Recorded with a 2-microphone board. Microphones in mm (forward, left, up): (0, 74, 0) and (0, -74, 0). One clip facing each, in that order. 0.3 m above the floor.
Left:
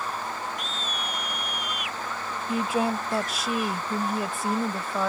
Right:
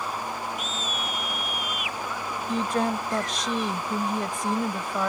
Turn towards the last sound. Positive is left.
turn(degrees=5)  # may be behind; listen again after turning